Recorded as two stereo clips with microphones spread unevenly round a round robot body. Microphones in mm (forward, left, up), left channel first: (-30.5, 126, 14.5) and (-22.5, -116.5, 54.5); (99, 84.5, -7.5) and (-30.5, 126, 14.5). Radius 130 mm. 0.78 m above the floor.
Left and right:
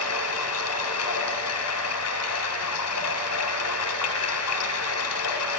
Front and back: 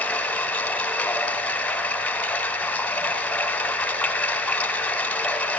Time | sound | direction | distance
0.0 | running water | 65° left | 1.9 m